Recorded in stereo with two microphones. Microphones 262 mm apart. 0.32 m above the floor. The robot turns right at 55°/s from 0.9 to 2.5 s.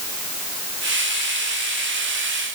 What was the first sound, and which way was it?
Only background noise.